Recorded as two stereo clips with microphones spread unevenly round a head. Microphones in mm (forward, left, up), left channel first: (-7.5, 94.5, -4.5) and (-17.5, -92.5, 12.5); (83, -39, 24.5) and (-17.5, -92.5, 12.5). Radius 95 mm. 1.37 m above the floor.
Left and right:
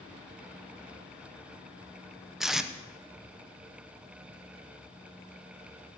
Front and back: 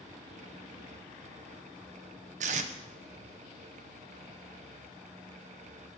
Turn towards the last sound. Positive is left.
turn(degrees=180)